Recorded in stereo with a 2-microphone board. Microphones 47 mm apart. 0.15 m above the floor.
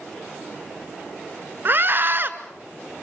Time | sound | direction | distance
1.6 | a scream | 45° right (ahead or behind) | 1.7 m